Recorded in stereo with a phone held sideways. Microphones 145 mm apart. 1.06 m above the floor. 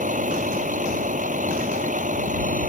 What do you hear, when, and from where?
0.0 s a vehicle: 60° right (ahead or behind)